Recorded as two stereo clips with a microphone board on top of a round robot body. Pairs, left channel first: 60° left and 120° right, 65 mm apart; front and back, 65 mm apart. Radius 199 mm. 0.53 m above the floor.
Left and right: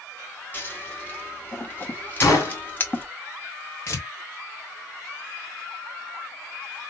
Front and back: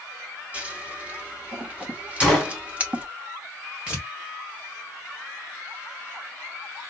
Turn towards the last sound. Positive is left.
turn(degrees=105)